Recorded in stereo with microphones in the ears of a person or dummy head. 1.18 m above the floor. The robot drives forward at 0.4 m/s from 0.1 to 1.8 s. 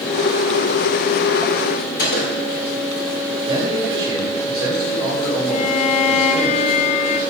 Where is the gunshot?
50° left (ahead or behind), 4 m.